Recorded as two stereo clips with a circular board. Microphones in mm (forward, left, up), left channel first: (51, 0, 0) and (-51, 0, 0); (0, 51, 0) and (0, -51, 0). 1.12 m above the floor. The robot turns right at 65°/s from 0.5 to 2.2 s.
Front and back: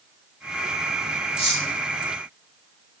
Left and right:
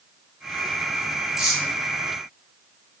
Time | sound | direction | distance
1.4 | cutlery clinking | 5° right | 2.5 m